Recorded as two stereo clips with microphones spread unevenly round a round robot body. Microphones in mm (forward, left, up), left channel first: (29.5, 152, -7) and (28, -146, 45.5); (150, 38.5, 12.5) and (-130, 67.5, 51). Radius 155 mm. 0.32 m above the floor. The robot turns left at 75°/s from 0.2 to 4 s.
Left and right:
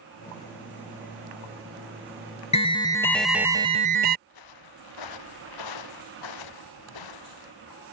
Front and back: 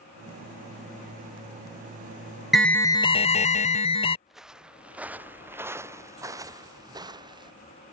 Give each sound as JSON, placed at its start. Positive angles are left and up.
{"t": 2.5, "sound": "an alarm", "azimuth_deg": 70}
{"t": 4.3, "sound": "footsteps", "azimuth_deg": 85}